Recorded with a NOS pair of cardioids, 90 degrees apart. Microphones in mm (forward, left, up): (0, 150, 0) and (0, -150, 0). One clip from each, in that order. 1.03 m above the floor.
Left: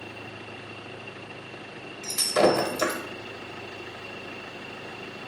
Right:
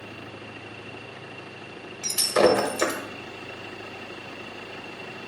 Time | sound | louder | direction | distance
2.0 | breaking glass | right 2 dB | 15° right | 0.8 m